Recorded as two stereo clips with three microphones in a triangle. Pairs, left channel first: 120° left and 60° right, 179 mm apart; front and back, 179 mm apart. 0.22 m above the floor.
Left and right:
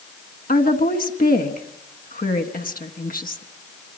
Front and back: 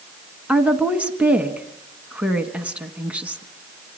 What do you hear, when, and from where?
0.5 s a woman speaking: 100° left, 2 m